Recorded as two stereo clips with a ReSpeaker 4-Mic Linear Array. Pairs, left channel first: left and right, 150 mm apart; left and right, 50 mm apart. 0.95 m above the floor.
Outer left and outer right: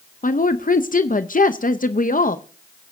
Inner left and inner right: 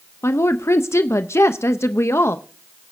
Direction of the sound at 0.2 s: 65° left (ahead or behind).